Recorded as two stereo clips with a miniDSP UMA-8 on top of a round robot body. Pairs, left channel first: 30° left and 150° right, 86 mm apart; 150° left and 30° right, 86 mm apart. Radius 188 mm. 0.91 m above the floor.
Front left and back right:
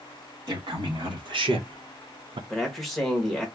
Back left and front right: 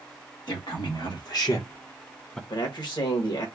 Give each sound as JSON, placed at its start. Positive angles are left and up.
{"t": 0.5, "sound": "a man speaking", "azimuth_deg": 180, "distance_m": 1.5}
{"t": 2.5, "sound": "a man speaking", "azimuth_deg": 120, "distance_m": 1.1}